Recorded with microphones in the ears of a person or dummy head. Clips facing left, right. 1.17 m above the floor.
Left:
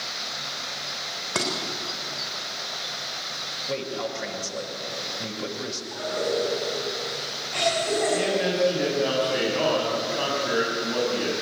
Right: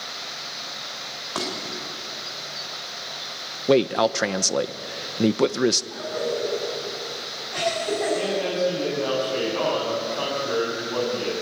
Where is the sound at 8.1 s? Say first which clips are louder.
Even; 15° left (ahead or behind), 7 m.